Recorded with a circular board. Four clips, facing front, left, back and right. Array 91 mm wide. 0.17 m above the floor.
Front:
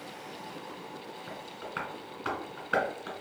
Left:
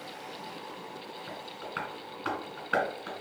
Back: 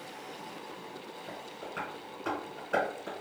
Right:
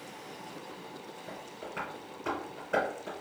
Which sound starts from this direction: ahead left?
Tapping, at 1.3 s.